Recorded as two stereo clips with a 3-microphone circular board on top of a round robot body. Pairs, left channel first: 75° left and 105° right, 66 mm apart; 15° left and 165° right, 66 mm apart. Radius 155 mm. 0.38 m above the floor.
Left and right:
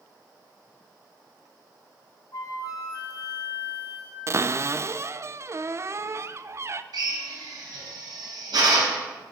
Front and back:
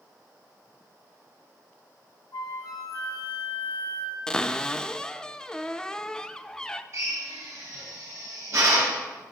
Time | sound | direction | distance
2.3 | a flute | 40° left | 4 m
4.3 | a cupboard door | 60° right | 0.7 m
6.9 | a drill | 120° right | 5.5 m